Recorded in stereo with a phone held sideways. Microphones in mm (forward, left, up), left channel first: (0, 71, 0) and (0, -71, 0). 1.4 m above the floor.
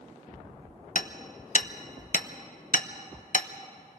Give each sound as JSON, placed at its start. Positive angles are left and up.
{"t": 0.9, "sound": "hammering", "side_deg": 70, "distance_m": 0.8}